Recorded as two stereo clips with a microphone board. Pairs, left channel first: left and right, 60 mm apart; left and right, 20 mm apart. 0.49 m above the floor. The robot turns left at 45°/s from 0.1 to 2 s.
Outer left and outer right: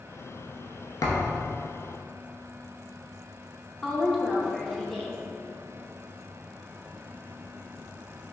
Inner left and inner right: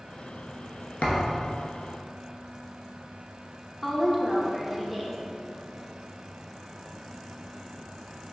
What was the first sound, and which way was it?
A thud, 65° left (ahead or behind).